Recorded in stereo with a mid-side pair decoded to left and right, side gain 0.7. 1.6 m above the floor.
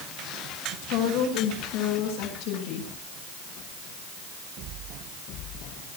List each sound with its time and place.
0.8 s a woman speaking: 65° left, 9.5 m